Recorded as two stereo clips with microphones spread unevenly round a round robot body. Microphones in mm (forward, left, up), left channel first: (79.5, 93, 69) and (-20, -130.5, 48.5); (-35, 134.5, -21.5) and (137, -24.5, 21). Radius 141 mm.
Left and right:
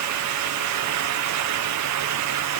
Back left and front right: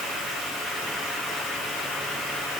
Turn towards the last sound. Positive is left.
No sound to turn to.